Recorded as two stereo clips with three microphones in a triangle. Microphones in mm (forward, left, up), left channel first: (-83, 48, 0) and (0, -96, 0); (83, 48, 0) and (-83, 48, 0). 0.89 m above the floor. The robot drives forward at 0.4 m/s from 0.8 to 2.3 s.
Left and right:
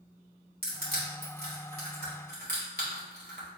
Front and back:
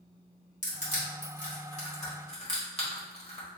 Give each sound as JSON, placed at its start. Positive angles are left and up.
{"t": 0.6, "sound": "crushing", "azimuth_deg": -40, "distance_m": 2.0}